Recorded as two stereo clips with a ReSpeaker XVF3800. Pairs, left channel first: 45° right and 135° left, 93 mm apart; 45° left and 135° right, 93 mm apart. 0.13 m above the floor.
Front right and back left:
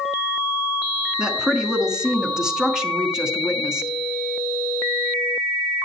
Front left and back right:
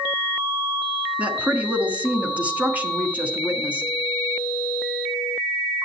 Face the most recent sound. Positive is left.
turn(degrees=-160)